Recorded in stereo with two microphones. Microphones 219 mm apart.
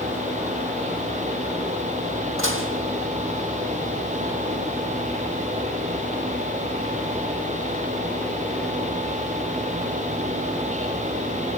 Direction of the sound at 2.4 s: 65° right (ahead or behind).